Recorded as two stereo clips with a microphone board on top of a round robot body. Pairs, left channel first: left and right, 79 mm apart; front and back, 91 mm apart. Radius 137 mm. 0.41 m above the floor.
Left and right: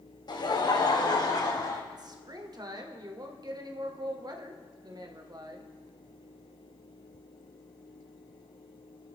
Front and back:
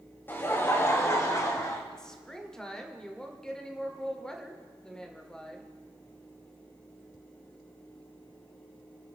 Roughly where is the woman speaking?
Right.